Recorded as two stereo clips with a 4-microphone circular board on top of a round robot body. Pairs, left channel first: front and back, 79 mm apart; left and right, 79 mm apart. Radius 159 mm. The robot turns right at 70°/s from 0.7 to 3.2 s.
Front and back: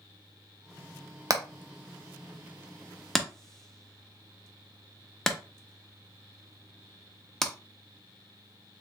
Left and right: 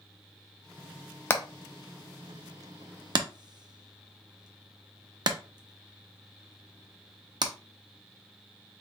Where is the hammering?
145° left, 1.0 m; by 7.5 s 80° right, 1.0 m.